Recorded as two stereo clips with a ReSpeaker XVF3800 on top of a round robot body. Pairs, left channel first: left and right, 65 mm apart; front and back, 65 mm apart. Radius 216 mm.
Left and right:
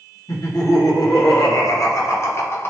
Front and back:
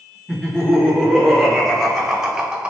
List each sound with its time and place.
0.3 s laughter: 80° left, 1.9 m; by 2.7 s 115° left, 1.0 m